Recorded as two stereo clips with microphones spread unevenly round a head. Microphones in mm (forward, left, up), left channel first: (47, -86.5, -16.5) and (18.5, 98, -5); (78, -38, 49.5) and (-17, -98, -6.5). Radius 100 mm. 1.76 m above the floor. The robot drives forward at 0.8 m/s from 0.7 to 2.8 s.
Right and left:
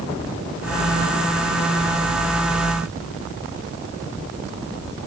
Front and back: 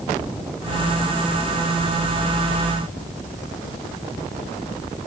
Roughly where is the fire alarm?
No fire alarm in this recording.